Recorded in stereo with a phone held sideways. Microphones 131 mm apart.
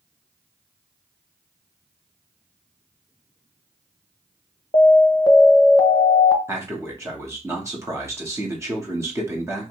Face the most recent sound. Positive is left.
turn(degrees=-20)  # may be behind; listen again after turning